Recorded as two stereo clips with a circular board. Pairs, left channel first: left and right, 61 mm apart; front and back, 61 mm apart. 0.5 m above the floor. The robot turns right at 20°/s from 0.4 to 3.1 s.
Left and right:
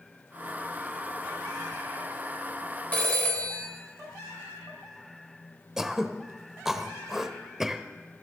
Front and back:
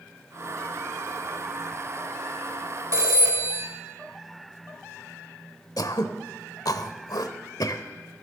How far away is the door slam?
No door slam in this recording.